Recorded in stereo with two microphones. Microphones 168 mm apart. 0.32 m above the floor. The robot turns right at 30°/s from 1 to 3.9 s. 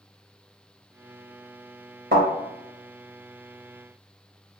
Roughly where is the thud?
Right.